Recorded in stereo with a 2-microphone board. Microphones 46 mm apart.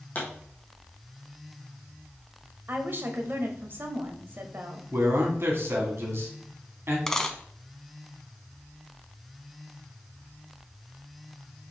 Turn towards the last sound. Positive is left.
turn(degrees=10)  # may be behind; listen again after turning